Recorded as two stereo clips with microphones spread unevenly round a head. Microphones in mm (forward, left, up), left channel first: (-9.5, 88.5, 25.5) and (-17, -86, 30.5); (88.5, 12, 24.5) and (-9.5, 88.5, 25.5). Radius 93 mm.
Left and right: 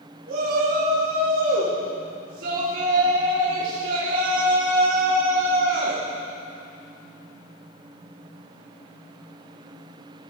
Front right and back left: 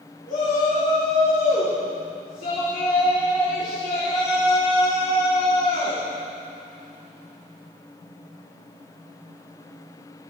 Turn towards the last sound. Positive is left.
turn(degrees=-65)